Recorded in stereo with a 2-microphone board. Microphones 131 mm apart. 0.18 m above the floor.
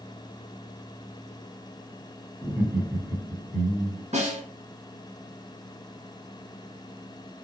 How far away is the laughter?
About 1.6 m.